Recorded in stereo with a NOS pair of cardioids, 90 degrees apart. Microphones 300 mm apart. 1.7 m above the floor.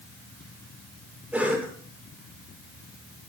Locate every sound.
1.3 s a cough: 5° right, 6.5 m